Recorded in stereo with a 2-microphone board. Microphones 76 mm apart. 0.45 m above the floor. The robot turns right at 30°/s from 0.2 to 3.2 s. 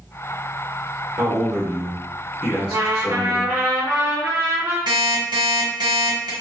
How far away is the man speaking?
About 1.1 m.